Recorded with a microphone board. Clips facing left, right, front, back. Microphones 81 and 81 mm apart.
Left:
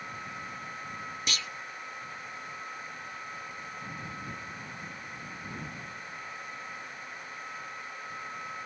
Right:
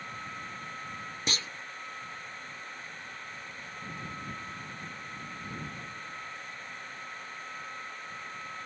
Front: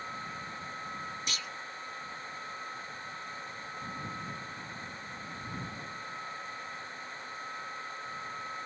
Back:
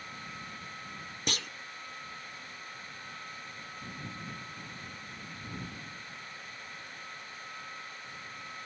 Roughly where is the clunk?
Behind right.